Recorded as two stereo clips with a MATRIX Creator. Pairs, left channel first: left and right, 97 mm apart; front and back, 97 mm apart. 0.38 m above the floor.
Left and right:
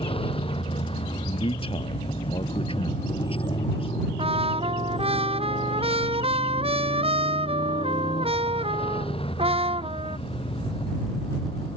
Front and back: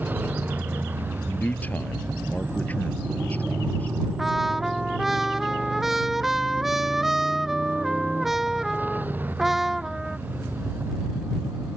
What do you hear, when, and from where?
0.0 s a motorcycle: 110° left; by 11.8 s 105° left
1.3 s a man speaking: 70° left
4.2 s a trumpet: 95° right